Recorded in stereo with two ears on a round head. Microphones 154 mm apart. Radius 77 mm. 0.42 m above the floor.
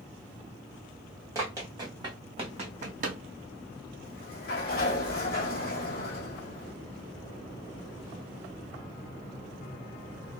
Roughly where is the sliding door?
Left.